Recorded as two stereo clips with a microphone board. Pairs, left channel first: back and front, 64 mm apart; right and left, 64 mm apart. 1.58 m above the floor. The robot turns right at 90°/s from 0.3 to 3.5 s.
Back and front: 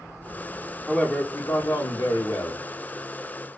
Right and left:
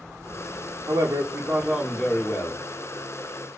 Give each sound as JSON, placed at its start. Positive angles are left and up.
{"t": 0.9, "sound": "a man speaking", "azimuth_deg": 95, "distance_m": 0.7}